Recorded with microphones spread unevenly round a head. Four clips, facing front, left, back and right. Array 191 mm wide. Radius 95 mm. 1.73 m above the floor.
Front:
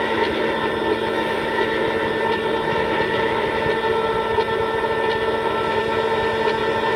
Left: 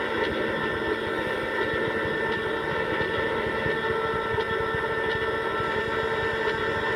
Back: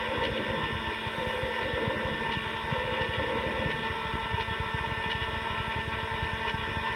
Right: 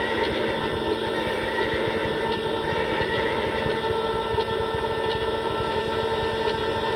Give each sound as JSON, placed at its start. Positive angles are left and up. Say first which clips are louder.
{"t": 0.0, "sound": "a machine running", "louder": "right 2 dB, front 11 dB", "azimuth_deg": -5}